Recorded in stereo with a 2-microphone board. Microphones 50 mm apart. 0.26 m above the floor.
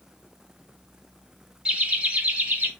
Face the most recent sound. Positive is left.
turn(degrees=-25)  # may be behind; listen again after turning